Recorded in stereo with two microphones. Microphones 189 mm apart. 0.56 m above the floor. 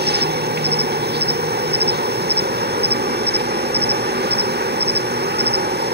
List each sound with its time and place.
0.0 s an insect: 60° right (ahead or behind), 1.0 m